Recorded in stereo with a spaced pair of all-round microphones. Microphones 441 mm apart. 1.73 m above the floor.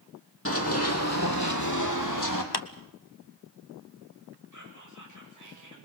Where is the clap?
55° left (ahead or behind), 0.9 m.